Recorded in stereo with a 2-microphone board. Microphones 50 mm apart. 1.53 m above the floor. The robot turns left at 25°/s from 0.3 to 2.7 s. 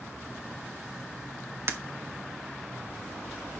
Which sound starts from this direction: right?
Breaking glass, at 1.7 s.